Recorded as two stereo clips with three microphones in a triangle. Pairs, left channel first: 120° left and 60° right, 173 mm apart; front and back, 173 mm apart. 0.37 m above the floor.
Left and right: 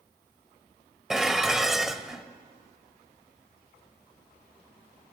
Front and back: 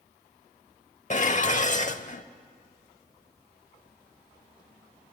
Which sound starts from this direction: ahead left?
Dishes clattering, at 1.1 s.